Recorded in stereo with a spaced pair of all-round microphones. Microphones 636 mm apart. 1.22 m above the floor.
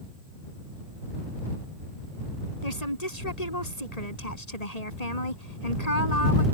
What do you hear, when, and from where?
2.6 s a woman speaking: 80° left